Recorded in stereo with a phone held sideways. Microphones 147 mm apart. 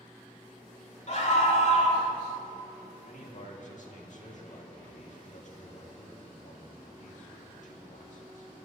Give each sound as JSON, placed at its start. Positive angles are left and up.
{"t": 1.1, "sound": "a scream", "side_deg": 50, "distance_m": 3.0}
{"t": 3.1, "sound": "a man speaking", "side_deg": 60, "distance_m": 2.0}